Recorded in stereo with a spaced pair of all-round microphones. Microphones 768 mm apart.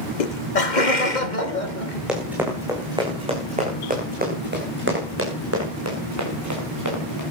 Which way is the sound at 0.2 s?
80° left.